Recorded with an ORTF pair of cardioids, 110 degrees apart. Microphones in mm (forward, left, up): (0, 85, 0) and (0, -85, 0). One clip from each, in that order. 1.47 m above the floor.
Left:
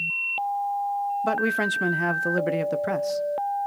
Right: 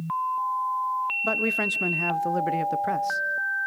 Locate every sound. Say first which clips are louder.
1.2 s a man speaking: left 2 dB; 10° left, 0.8 m